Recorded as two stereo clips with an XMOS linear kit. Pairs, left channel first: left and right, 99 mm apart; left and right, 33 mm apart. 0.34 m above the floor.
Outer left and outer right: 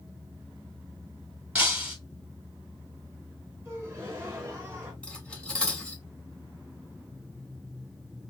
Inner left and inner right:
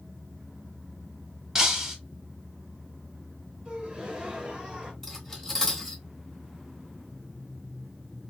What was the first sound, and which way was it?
Breaking glass, 15° right (ahead or behind).